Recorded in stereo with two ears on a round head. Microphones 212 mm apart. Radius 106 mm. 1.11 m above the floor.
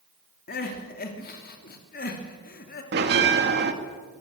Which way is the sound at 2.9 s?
45° right (ahead or behind).